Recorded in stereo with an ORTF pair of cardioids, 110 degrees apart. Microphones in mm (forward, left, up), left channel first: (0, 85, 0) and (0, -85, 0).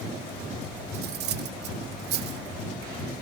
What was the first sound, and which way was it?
Cutlery clinking, 65° right.